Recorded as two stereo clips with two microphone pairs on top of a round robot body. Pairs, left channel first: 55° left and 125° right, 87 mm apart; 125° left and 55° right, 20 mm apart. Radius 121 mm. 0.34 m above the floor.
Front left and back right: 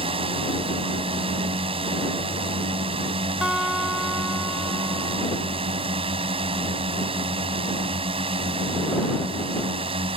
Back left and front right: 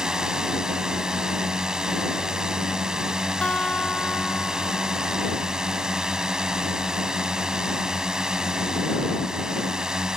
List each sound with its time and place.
0.0 s a drone: 115° right
3.4 s a guitar: 150° left